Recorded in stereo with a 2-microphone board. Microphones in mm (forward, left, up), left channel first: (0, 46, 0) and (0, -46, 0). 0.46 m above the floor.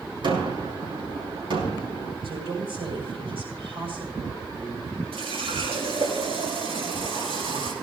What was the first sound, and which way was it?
A gunshot, 60° right (ahead or behind).